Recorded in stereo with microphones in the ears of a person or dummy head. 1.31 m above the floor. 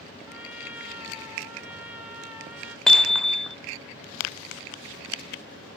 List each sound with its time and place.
0.3 s a trumpet: 10° right (ahead or behind), 2.5 m
2.9 s hammering: 5° left (ahead or behind), 0.6 m